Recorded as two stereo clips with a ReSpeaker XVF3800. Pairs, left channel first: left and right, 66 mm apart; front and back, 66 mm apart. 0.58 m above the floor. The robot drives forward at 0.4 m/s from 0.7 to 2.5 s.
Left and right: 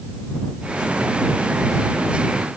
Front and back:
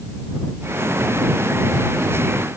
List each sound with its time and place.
Only background noise.